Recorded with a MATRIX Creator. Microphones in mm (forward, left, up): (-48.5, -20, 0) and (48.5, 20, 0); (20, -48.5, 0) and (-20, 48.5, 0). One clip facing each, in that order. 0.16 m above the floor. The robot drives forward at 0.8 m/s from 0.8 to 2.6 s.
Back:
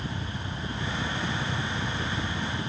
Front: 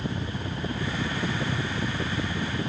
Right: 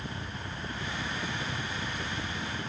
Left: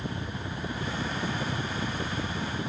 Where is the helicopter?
50° left.